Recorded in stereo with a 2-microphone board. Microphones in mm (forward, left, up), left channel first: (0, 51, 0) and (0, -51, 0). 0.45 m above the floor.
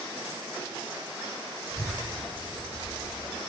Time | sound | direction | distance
1.7 | a child speaking | 30° left (ahead or behind) | 2.5 m